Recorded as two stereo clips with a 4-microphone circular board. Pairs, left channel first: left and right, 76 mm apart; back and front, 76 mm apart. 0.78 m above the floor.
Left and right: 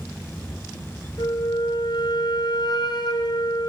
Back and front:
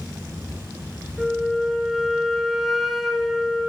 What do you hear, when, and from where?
1.2 s a flute: 90° left, 2.5 m